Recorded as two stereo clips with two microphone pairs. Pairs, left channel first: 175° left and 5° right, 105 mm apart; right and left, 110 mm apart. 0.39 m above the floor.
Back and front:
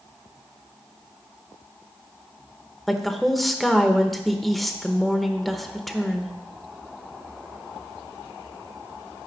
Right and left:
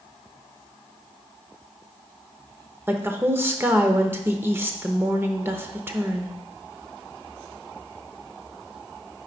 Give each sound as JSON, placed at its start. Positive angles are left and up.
{"t": 2.9, "sound": "a woman speaking", "azimuth_deg": 80, "distance_m": 0.8}